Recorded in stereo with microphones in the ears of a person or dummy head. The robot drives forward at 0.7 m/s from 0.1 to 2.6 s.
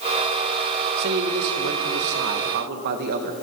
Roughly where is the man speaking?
Right.